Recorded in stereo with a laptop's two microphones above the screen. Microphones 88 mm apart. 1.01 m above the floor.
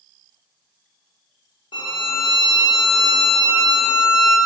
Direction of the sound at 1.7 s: 65° left (ahead or behind).